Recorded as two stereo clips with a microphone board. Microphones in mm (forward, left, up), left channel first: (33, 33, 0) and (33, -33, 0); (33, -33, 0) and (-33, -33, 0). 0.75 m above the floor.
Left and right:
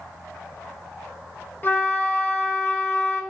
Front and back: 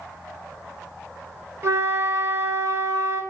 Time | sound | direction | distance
1.6 | a flute | 145° left | 1.1 m